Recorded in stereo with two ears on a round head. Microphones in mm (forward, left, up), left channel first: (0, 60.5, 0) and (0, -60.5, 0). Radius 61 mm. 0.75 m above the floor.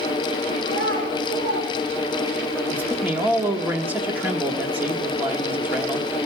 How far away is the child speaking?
About 5 m.